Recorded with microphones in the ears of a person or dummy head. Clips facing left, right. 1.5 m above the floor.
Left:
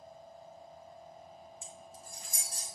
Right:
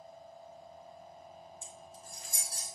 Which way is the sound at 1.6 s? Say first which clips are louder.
Even; 60° left (ahead or behind).